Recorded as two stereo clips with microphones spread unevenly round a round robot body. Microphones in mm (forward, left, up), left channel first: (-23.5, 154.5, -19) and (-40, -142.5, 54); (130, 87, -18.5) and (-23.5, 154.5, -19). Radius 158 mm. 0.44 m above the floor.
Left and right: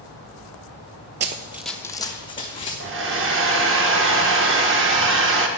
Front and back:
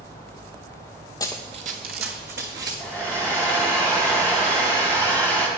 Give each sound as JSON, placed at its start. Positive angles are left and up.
{"t": 1.2, "sound": "running footsteps", "azimuth_deg": -80, "distance_m": 0.5}
{"t": 2.8, "sound": "a hair dryer", "azimuth_deg": -135, "distance_m": 1.0}